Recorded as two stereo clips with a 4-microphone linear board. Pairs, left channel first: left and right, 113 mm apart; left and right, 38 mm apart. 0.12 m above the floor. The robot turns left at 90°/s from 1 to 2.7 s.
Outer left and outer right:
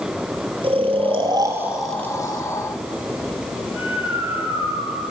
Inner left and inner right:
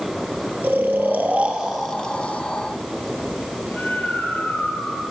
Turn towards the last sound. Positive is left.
turn(degrees=60)  # may be behind; listen again after turning